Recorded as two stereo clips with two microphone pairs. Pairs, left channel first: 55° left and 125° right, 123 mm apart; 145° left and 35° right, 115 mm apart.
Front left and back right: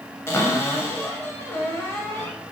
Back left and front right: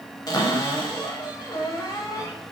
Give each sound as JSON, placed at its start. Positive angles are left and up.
{"t": 0.3, "sound": "a cupboard door", "azimuth_deg": 115, "distance_m": 0.8}